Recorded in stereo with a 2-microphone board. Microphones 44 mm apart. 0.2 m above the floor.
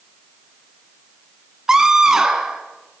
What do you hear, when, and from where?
1.7 s a scream: 10° right (ahead or behind), 2 m